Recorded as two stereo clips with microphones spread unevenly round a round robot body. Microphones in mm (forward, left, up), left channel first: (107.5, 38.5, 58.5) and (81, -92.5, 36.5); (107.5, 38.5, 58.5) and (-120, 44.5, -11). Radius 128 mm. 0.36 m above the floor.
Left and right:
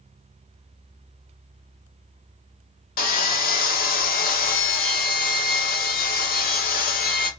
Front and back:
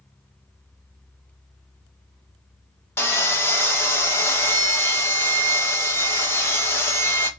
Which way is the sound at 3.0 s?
85° left.